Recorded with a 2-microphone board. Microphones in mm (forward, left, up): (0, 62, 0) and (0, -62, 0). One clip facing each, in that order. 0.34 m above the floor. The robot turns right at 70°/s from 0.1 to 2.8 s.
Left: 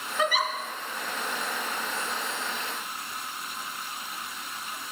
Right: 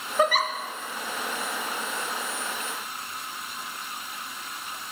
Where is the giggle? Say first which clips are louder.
Right 4 dB; 45° right (ahead or behind), 1.0 m; by 0.5 s 70° right (ahead or behind), 1.0 m.